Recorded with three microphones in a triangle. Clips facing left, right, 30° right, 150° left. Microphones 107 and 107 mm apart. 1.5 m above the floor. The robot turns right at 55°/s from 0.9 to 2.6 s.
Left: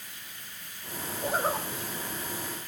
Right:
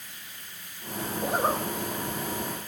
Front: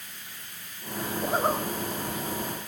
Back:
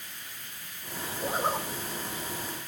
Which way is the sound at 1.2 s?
95° right.